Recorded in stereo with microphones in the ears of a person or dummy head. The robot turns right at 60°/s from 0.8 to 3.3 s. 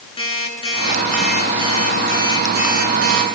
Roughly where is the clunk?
I don't hear a clunk.